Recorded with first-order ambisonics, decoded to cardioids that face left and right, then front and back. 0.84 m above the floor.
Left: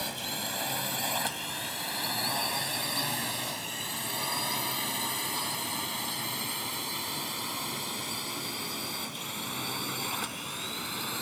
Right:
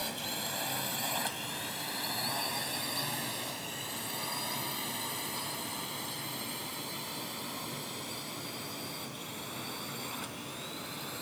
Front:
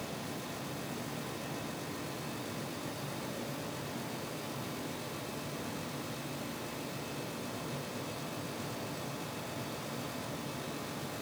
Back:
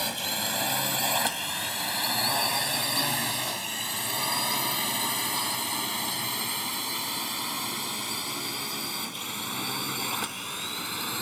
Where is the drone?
170° left; by 11.2 s 155° left.